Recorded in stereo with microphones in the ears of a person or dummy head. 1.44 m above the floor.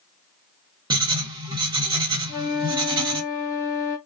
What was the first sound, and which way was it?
Writing, 25° right (ahead or behind).